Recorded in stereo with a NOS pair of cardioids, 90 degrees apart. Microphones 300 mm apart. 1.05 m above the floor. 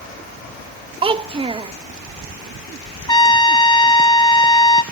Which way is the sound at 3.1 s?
15° left.